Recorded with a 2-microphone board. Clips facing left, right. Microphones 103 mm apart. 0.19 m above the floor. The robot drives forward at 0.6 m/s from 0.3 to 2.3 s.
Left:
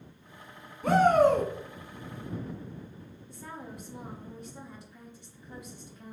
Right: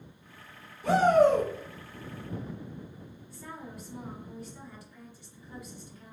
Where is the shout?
45° left (ahead or behind), 1.6 m.